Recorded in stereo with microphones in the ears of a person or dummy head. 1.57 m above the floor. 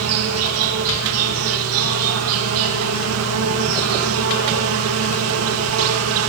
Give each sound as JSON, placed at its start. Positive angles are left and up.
{"t": 0.0, "sound": "an insect", "side_deg": -70, "distance_m": 3.0}